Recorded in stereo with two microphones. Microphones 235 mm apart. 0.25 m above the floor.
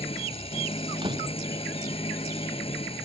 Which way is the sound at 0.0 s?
25° left (ahead or behind).